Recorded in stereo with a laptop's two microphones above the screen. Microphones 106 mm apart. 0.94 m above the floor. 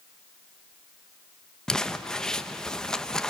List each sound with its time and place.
1.7 s crumpling: 5° left (ahead or behind), 1.0 m